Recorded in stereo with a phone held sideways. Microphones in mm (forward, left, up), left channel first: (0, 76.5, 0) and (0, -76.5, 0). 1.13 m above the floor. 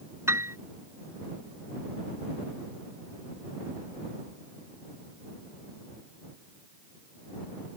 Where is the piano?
15° right (ahead or behind).